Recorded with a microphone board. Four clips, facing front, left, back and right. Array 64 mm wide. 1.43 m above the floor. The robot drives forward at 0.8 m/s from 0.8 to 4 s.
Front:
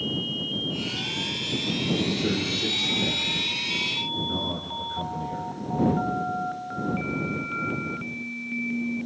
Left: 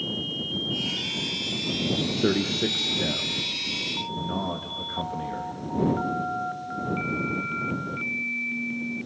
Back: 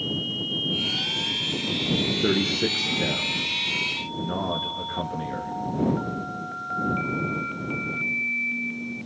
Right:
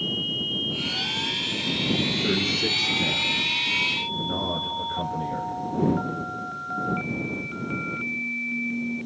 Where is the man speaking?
120° left, 1.2 m; by 5.5 s 155° left, 2.5 m.